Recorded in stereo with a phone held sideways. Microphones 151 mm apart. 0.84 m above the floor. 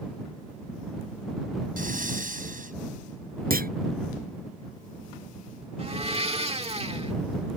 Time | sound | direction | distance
1.8 | breathing | 70° right (ahead or behind) | ?
3.5 | a clunk | 75° right (ahead or behind) | ?
5.8 | a blender | 45° right (ahead or behind) | ?